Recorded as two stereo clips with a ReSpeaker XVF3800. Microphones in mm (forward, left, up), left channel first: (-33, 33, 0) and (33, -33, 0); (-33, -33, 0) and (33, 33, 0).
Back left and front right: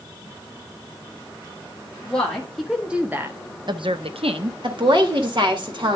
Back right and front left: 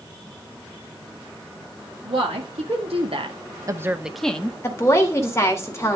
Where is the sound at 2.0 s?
50° left, 2 m; by 4.5 s 65° right, 1.2 m.